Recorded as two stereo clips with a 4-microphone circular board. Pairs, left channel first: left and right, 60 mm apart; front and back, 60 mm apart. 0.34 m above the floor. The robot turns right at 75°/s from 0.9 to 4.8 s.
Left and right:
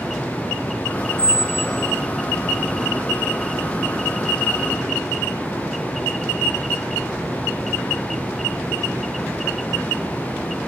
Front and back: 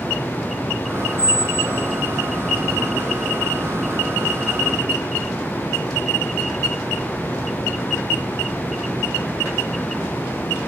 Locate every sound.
1.2 s a squeak: 40° right, 0.6 m; by 2.0 s 25° left, 0.6 m